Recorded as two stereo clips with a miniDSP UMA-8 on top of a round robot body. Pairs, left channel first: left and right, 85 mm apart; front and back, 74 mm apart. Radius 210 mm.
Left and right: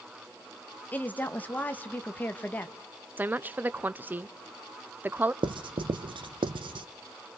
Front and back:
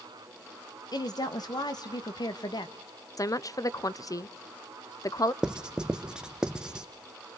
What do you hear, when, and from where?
0.9 s a woman speaking: 20° left, 1.6 m
3.2 s a woman speaking: 25° right, 0.9 m
5.4 s writing: 100° right, 0.8 m